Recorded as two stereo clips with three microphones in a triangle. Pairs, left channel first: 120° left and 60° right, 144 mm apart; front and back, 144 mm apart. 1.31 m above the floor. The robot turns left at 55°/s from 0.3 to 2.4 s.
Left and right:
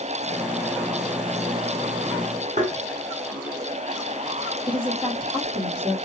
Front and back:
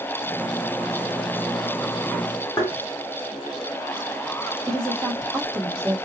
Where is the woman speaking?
115° right, 2 m.